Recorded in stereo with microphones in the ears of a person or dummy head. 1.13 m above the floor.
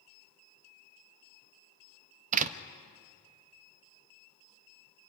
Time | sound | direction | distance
2.3 | a door slam | 45° right (ahead or behind) | 0.8 m